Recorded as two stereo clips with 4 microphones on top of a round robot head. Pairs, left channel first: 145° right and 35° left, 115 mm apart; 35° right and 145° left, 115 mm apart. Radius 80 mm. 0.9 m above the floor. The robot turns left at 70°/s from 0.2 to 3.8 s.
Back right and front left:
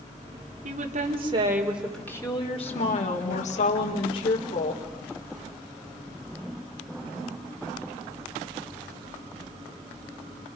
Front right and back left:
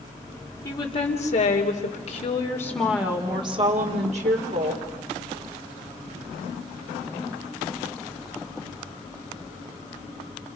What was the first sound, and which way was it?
A woman speaking, 30° left.